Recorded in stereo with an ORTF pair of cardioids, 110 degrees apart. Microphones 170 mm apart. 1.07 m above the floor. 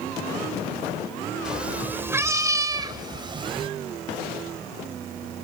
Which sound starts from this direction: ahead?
A cat meowing, at 1.4 s.